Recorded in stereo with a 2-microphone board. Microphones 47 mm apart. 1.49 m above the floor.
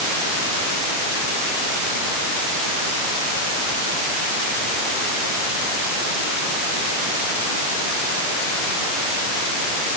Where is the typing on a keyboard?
I don't hear typing on a keyboard.